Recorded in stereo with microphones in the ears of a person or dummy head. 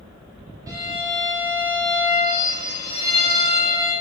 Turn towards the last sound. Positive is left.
turn(degrees=-20)  # may be behind; listen again after turning